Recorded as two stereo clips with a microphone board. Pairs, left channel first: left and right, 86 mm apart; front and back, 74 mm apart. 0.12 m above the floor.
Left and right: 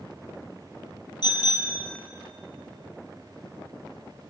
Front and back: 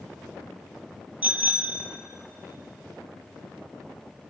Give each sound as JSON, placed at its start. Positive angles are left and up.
{"t": 1.2, "sound": "a bicycle bell", "azimuth_deg": 115, "distance_m": 2.0}